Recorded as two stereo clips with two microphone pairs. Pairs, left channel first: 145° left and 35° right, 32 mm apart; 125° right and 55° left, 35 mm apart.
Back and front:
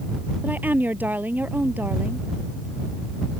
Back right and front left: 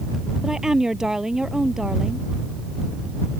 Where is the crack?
No crack in this recording.